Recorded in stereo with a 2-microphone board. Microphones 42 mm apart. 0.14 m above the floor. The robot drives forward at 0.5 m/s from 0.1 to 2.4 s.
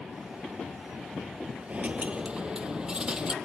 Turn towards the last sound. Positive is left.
turn(degrees=-20)  # may be behind; listen again after turning